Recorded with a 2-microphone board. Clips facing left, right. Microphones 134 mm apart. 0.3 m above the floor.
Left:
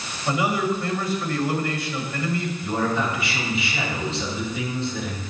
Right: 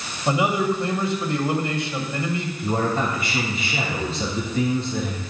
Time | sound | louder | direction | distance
0.3 | a man speaking | right 2 dB | 25° right (ahead or behind) | 1.6 m
2.6 | a man speaking | right 2 dB | 45° right (ahead or behind) | 3.5 m